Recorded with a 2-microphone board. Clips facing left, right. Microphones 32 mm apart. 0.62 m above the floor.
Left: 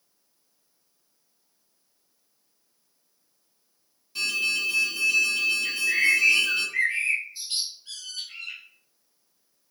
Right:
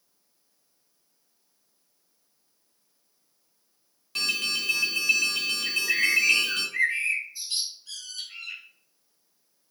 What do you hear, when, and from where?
4.2 s an alarm: 70° right (ahead or behind), 0.7 m
5.7 s a bird: 40° left (ahead or behind), 1.4 m